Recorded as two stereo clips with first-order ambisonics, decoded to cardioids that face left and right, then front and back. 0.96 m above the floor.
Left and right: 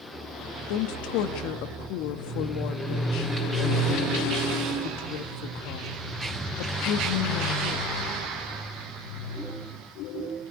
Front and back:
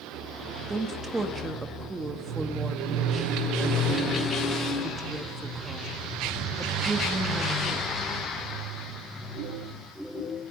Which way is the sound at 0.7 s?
100° left.